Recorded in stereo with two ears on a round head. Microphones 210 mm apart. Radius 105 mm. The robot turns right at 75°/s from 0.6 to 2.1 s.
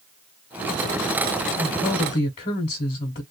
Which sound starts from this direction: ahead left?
A woman speaking, at 1.6 s.